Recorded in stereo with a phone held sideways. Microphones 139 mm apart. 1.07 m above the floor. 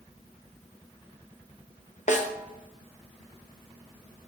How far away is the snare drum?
About 1.0 m.